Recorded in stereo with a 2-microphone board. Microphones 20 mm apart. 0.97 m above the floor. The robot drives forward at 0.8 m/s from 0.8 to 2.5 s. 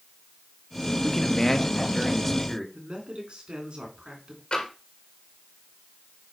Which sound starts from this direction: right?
A man speaking, at 2.7 s.